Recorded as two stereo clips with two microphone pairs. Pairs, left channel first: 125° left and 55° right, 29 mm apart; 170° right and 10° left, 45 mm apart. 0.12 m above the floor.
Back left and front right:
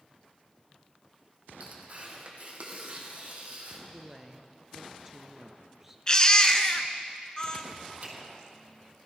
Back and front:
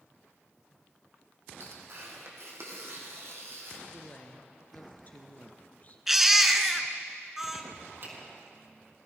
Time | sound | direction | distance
1.6 | tearing paper | 10° right | 2.5 m
3.9 | a woman speaking | 130° right | 1.6 m
6.1 | a baby crying | 90° left | 0.9 m
8.0 | a finger snap | 20° right | 3.5 m